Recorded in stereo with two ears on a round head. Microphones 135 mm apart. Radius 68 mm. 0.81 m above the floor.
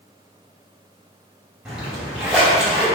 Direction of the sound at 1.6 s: 5° right (ahead or behind).